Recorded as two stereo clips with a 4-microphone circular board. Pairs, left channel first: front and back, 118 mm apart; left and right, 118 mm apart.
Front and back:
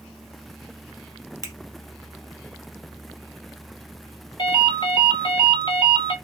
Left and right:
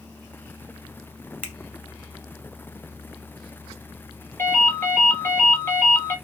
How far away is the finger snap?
About 1.3 m.